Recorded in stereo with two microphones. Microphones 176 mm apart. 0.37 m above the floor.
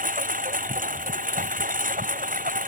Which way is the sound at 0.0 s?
50° right (ahead or behind).